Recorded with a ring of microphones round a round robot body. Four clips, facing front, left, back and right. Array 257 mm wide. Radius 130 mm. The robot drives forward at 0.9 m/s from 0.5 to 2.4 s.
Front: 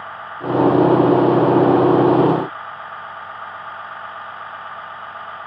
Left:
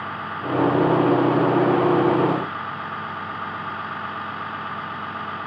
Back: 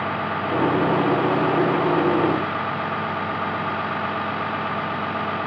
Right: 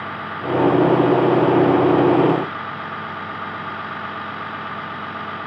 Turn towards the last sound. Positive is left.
turn(degrees=-175)